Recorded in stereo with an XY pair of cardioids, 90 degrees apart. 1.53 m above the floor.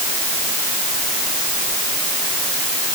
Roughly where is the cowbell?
I don't hear a cowbell.